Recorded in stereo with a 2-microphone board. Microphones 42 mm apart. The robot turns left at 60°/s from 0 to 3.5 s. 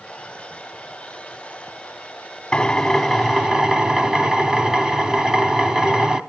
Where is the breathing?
No breathing in this recording.